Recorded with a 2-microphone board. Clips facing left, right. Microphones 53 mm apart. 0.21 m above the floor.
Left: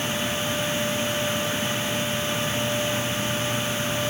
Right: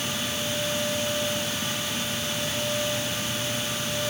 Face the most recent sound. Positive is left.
No sound to turn to.